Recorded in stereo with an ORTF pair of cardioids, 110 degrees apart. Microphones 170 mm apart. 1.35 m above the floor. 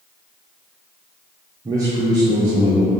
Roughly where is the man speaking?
Ahead.